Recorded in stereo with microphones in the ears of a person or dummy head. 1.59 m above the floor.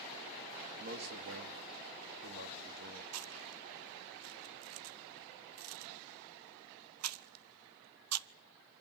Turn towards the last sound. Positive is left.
turn(degrees=-85)